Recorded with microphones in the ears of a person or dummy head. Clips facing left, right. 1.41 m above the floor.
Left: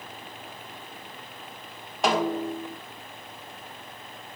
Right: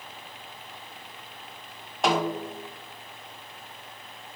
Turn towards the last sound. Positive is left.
turn(degrees=0)  # may be behind; listen again after turning